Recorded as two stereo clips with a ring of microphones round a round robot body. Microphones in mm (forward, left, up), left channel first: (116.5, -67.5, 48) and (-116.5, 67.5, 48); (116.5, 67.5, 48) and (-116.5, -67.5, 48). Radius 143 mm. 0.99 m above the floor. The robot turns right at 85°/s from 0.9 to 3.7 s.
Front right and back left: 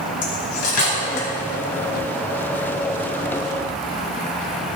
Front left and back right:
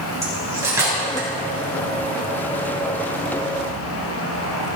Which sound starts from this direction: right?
Cutlery clinking, at 0.2 s.